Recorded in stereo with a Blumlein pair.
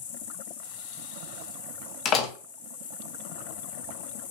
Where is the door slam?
35° left, 1.0 m.